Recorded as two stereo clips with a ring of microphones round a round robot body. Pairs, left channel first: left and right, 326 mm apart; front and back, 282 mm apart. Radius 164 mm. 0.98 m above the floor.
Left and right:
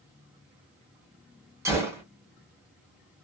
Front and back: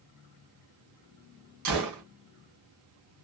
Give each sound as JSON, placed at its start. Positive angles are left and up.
{"t": 1.6, "sound": "a gunshot", "azimuth_deg": -170, "distance_m": 1.1}